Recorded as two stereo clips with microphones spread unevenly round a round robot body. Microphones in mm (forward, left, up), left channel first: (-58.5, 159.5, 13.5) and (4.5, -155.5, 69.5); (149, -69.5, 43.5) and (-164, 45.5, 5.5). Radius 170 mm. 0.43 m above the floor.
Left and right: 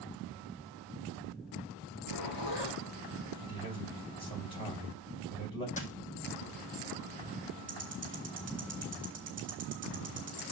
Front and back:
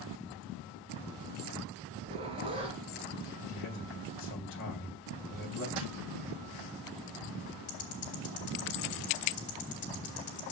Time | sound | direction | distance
1.9 | a zipper | 85° left | 4 m
3.5 | a man speaking | 35° left | 3 m
5.8 | a dropped coin | 170° left | 1.9 m
7.7 | ticking | 10° right | 2.5 m